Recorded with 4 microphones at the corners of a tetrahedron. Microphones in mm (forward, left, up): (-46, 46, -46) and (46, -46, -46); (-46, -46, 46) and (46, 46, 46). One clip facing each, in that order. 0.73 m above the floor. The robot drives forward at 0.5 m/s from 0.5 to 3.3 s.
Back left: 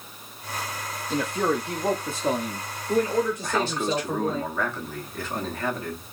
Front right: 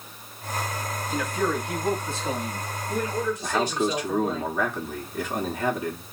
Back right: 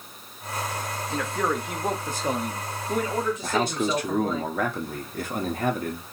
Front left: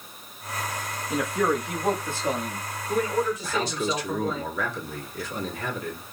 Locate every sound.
1.1 s a man speaking: 105° left, 0.5 m; by 4.4 s 165° left, 1.3 m
3.4 s a man speaking: 120° right, 1.0 m